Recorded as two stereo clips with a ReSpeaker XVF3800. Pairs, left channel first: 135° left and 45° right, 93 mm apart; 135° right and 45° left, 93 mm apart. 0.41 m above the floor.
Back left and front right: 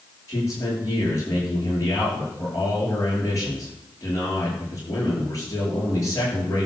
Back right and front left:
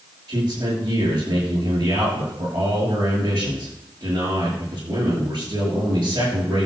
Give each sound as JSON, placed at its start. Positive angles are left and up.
{"t": 0.3, "sound": "a man speaking", "azimuth_deg": 80, "distance_m": 7.0}